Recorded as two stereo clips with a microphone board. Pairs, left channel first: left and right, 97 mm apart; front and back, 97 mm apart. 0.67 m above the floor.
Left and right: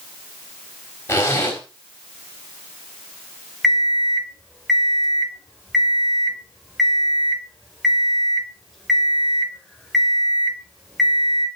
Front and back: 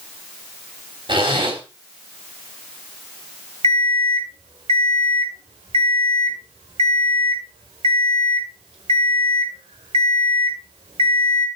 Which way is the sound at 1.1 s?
155° left.